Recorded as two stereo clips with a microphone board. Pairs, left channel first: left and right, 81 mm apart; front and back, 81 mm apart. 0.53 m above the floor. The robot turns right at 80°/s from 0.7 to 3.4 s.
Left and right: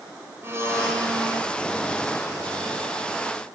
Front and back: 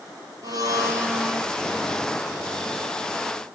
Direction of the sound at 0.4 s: 145° right.